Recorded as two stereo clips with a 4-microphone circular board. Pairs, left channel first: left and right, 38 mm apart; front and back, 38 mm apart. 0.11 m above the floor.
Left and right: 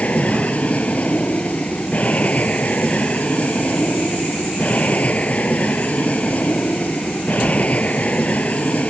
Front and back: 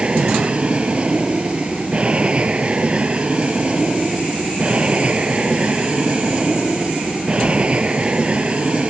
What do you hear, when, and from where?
0.0 s an aircraft: 130° left